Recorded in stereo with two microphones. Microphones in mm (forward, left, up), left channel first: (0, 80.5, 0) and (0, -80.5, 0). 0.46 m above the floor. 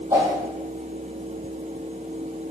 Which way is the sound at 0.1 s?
20° right (ahead or behind).